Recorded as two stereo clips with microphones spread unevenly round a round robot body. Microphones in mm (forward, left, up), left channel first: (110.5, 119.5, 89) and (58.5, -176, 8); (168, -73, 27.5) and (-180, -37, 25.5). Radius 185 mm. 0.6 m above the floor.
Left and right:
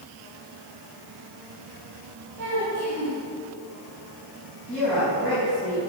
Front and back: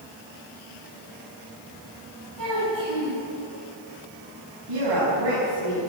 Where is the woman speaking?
170° left, 5.5 m.